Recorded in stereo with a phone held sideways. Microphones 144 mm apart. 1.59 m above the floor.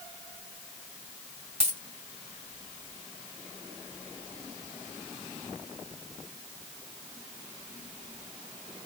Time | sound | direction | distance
1.6 | a dropped coin | 50° right (ahead or behind) | 2 m